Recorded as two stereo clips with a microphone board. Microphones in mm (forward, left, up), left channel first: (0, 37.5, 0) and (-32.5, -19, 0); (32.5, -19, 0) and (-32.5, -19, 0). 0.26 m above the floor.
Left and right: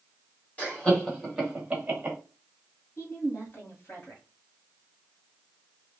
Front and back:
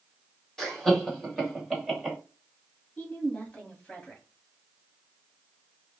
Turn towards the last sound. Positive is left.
turn(degrees=55)